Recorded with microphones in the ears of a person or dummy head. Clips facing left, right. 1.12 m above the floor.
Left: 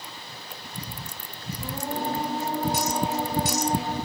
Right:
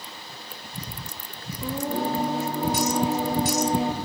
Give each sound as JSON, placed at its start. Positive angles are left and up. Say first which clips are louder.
{"t": 1.6, "sound": "singing", "louder": "right 4 dB", "side_deg": -60, "distance_m": 0.6}